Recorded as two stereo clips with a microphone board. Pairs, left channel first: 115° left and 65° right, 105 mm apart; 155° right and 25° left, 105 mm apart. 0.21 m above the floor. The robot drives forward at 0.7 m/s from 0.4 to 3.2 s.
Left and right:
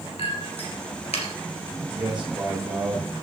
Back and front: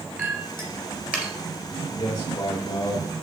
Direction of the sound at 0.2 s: 85° left.